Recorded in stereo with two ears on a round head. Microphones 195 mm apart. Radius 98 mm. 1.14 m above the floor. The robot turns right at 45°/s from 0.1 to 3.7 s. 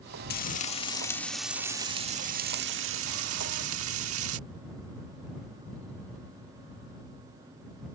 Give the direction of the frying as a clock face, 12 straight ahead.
8 o'clock.